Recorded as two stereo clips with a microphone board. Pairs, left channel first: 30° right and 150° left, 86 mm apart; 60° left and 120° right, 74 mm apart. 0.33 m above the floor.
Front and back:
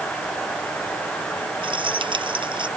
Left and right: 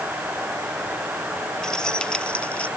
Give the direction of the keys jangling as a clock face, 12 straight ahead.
7 o'clock.